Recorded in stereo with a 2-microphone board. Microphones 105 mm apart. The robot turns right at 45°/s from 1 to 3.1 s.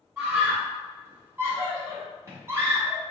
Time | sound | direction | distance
0.2 | a scream | 20° right (ahead or behind) | 1.2 m